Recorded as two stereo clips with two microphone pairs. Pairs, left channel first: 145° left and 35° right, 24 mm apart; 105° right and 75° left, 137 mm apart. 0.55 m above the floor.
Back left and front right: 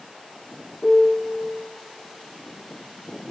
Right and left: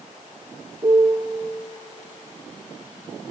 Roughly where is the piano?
Left.